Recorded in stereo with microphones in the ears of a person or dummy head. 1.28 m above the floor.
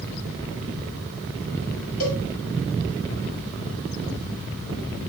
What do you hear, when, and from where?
2.0 s a cowbell: 45° left (ahead or behind), 1.6 m